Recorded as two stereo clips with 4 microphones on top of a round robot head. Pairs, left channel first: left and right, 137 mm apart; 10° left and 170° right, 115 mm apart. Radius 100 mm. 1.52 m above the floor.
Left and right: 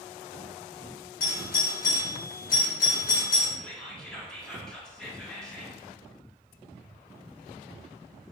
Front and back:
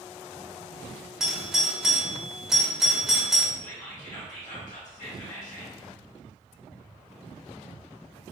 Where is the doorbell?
105° left, 1.0 m.